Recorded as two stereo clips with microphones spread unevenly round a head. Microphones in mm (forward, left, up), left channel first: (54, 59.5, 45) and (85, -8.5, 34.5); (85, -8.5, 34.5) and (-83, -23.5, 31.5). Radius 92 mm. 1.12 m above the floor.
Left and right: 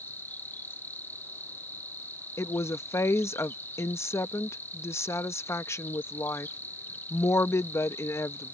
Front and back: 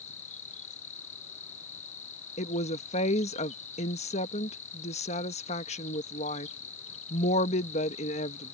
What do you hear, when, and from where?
0.0 s an insect: 50° left
2.4 s a woman speaking: 60° left